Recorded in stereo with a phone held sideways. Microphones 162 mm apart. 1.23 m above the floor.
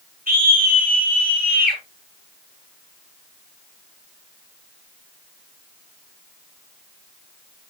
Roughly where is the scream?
Right.